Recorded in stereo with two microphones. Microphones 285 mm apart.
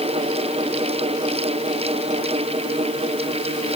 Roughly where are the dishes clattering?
I don't hear dishes clattering.